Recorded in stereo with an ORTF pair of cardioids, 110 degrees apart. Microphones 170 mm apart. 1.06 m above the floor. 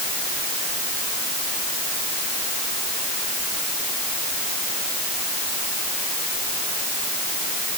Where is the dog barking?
I don't hear a dog barking.